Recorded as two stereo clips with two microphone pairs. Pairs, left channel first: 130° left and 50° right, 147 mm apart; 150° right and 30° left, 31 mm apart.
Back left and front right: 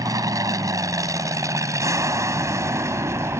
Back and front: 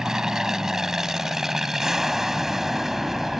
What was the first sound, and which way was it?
An aircraft, 20° right.